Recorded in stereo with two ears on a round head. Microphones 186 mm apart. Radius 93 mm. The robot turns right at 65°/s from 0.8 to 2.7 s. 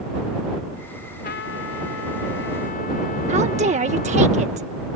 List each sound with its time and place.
1.2 s a trumpet: 45° left; by 4.3 s 140° left
3.3 s a woman speaking: 35° right (ahead or behind)